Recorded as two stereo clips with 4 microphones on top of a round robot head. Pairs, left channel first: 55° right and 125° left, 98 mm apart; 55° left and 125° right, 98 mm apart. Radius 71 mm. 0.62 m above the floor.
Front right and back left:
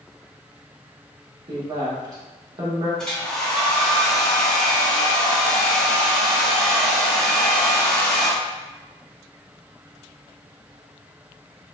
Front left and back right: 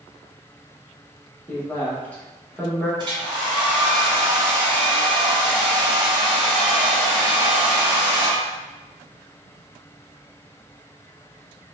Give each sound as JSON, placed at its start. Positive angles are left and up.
{"t": 1.5, "sound": "a woman speaking", "azimuth_deg": 120, "distance_m": 1.3}
{"t": 3.0, "sound": "a hair dryer", "azimuth_deg": -135, "distance_m": 1.4}